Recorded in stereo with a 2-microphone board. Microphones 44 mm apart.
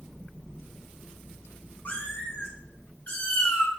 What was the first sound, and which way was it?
A cat meowing, 40° left (ahead or behind).